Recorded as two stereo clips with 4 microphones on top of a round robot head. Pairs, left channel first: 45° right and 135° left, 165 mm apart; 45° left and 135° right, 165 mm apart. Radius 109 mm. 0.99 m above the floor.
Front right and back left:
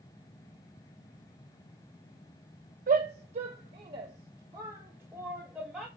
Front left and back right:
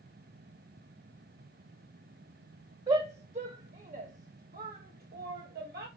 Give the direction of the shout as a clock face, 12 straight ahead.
6 o'clock.